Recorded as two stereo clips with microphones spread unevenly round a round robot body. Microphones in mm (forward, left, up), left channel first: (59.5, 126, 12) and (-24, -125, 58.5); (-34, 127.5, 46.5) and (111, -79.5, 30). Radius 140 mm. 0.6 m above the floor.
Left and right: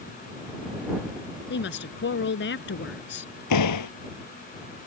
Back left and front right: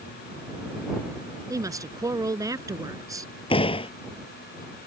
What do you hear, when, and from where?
1.5 s a woman speaking: 20° left
3.5 s a door slam: 55° left